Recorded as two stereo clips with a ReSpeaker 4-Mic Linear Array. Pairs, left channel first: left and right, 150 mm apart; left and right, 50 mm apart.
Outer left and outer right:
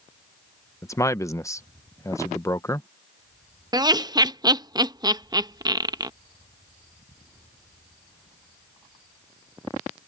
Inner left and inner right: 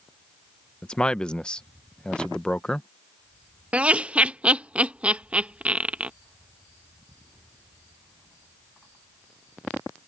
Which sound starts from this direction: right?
Laughter, at 3.7 s.